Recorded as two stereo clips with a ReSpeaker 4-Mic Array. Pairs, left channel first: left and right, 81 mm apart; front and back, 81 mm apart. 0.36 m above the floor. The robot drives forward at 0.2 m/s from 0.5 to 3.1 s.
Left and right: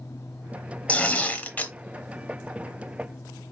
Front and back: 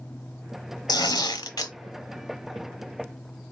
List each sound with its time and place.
0.9 s tearing paper: 20° left, 0.9 m; by 1.7 s 25° left, 0.8 m